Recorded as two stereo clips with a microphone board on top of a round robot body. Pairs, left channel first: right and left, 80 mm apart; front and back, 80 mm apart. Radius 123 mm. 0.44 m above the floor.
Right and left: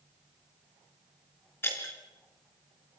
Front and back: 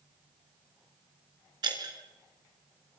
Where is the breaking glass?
150° right, 4 m.